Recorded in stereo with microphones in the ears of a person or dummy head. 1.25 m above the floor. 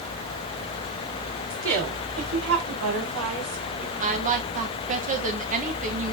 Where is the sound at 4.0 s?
40° right (ahead or behind), 1.2 m.